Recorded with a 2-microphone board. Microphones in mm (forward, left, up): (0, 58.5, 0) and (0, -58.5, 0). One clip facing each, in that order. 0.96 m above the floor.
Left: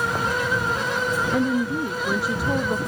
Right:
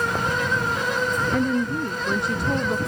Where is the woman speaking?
5° left (ahead or behind).